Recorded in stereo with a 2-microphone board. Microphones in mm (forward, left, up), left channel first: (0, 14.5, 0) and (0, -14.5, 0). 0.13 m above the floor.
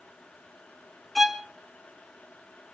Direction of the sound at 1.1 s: Centre (ahead or behind).